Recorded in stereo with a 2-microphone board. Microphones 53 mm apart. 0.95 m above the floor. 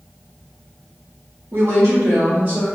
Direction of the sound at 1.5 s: 70° right (ahead or behind).